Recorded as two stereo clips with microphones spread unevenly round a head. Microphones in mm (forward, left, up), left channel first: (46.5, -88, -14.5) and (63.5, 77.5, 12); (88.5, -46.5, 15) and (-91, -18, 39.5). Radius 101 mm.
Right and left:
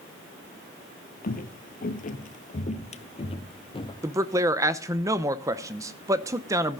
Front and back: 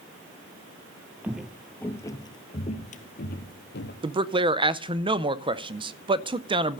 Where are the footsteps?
120° right, 1.3 m; by 3.9 s 35° right, 1.7 m.